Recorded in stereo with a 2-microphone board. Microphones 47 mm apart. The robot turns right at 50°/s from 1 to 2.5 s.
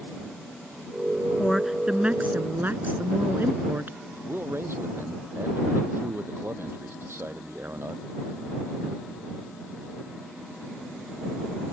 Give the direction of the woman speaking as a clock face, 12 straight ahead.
6 o'clock.